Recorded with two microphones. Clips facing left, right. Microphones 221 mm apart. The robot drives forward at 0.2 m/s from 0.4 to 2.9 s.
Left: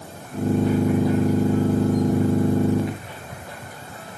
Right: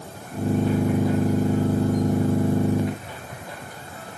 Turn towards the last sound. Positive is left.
No sound to turn to.